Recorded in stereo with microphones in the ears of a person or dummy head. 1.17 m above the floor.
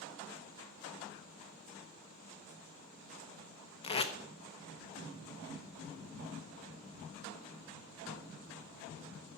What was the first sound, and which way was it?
Tape being pulled, 35° left (ahead or behind).